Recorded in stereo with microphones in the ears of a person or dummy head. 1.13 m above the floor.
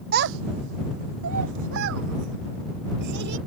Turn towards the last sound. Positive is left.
turn(degrees=-55)  # may be behind; listen again after turning